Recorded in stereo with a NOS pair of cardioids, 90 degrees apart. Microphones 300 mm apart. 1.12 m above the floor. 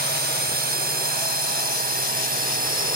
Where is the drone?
30° right.